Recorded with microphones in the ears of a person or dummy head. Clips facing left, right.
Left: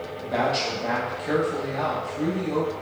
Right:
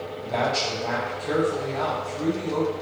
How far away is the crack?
No crack in this recording.